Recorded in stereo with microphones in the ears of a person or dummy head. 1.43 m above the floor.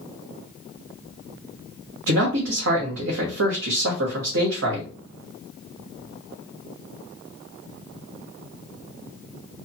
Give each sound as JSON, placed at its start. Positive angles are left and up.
{"t": 2.1, "sound": "a man speaking", "side_deg": -80, "distance_m": 1.0}